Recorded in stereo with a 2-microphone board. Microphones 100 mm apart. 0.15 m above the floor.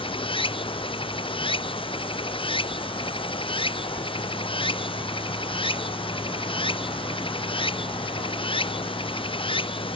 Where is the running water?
60° left (ahead or behind).